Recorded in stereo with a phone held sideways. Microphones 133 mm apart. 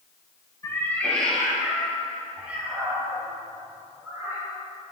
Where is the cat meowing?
20° left (ahead or behind), 1.6 m; by 4.4 s 20° right (ahead or behind), 5.5 m.